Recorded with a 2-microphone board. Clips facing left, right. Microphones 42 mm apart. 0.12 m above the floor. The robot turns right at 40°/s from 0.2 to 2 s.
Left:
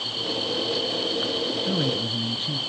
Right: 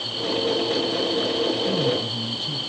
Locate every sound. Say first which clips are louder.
1.7 s a man speaking: right 2 dB; 15° left (ahead or behind), 1.1 m; by 2.6 s 20° left (ahead or behind), 1.1 m